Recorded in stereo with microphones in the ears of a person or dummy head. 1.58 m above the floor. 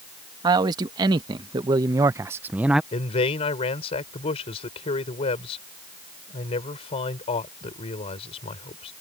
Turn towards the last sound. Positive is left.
turn(degrees=30)  # may be behind; listen again after turning